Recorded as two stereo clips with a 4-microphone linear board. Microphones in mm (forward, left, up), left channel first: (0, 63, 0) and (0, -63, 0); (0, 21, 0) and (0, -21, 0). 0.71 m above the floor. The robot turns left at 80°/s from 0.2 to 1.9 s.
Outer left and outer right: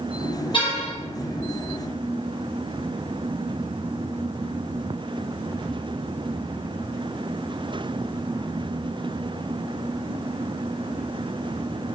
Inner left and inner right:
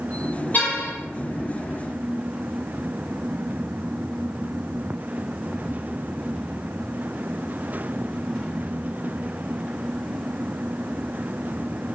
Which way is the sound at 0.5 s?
140° left.